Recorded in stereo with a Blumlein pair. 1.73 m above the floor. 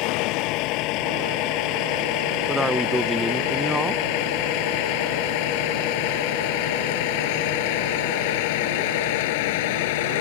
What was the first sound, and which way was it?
A vehicle, 40° left.